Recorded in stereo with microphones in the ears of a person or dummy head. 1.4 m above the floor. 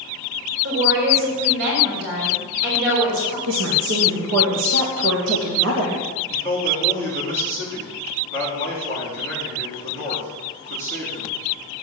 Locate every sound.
0.6 s a woman speaking: 65° right (ahead or behind), 5 m
3.5 s a woman speaking: 70° right (ahead or behind), 1.8 m
6.3 s a man speaking: 50° right (ahead or behind), 4 m